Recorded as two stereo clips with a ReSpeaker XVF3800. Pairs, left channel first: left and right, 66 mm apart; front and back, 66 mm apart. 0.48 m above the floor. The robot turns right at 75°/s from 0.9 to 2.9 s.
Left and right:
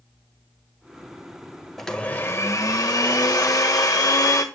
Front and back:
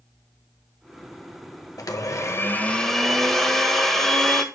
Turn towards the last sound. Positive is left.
turn(degrees=85)